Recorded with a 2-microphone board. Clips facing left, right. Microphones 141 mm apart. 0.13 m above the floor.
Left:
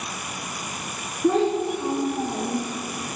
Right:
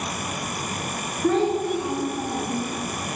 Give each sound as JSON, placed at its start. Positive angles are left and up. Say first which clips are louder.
{"t": 1.2, "sound": "a child speaking", "louder": "left 1 dB", "side_deg": 10, "distance_m": 1.1}